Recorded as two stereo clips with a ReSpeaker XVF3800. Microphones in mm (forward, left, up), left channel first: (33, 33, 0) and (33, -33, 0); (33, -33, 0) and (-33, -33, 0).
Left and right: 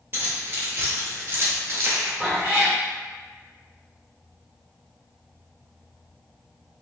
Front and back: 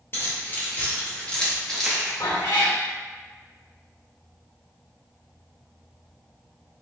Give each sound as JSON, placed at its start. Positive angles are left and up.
{"t": 0.1, "sound": "keys jangling", "azimuth_deg": -40, "distance_m": 1.4}
{"t": 2.2, "sound": "a cat meowing", "azimuth_deg": -5, "distance_m": 1.8}